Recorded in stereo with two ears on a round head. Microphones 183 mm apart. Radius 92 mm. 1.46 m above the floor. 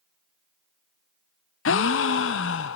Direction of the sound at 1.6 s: 65° left (ahead or behind).